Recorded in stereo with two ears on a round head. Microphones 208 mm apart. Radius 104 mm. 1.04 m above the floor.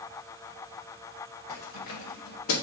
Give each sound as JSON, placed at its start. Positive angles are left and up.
{"t": 1.5, "sound": "keys jangling", "side_deg": 85, "distance_m": 2.5}